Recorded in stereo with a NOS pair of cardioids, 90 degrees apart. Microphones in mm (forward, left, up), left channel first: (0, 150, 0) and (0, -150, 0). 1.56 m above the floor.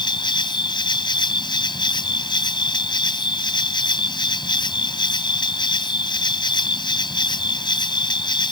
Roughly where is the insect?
Ahead.